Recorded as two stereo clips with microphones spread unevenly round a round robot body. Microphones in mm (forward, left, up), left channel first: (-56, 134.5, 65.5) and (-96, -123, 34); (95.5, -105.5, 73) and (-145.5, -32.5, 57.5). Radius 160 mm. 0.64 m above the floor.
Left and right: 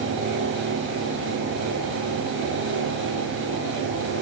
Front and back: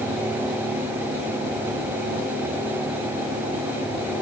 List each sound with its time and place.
Only background noise.